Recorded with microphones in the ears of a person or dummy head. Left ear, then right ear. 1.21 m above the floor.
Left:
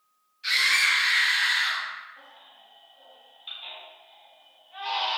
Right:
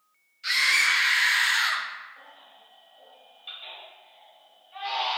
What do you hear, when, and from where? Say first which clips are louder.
0.4 s a scream: even; 5° right (ahead or behind), 0.8 m; by 1.9 s 60° right (ahead or behind), 0.5 m
2.2 s a baby crying: even; 5° right (ahead or behind), 1.4 m